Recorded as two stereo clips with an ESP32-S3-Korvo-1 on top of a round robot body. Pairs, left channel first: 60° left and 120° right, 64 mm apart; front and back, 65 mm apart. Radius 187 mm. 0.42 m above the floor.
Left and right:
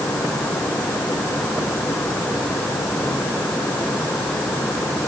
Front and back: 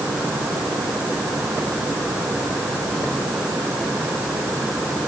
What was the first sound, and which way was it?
Only background noise.